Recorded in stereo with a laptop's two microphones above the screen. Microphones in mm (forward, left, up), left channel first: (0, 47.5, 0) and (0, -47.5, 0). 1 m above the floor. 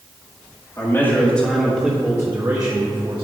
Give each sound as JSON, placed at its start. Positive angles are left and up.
{"t": 0.8, "sound": "a man speaking", "side_deg": 30, "distance_m": 1.7}